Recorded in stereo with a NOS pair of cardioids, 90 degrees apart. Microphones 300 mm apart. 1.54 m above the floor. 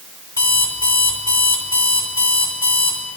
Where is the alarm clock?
10° left, 3 m.